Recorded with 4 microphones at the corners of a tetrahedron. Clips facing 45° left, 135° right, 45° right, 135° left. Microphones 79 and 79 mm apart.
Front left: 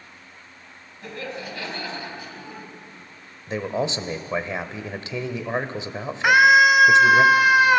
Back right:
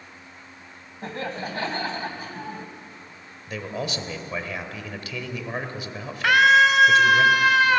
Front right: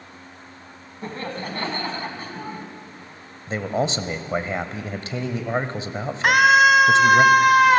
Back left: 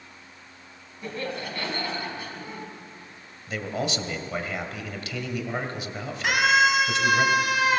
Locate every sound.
1.0 s laughter: 90° right, 2.5 m
3.5 s a man speaking: 5° right, 1.5 m
6.2 s a scream: 25° right, 1.8 m